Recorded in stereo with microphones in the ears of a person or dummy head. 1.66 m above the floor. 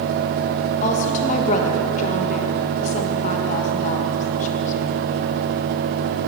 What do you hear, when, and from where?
0.8 s a woman speaking: 40° left (ahead or behind), 1.7 m